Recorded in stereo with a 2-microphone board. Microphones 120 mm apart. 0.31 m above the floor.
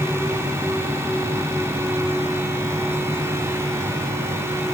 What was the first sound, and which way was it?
Only background noise.